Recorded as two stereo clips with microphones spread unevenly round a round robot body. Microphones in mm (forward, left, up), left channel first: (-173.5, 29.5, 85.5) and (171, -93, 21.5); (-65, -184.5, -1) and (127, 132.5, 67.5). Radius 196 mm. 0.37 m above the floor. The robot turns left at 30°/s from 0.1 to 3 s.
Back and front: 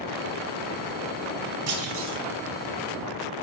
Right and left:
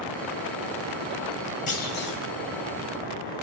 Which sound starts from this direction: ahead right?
A clunk, at 1.7 s.